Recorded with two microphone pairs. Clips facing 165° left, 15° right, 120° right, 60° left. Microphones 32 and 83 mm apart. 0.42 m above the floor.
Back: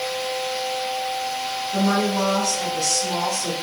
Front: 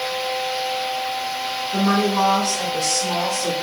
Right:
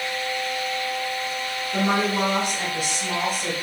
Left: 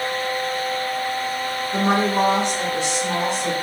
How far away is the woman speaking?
About 1.2 m.